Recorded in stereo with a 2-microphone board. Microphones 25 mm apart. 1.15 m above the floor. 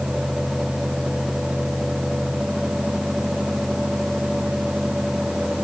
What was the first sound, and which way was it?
Only background noise.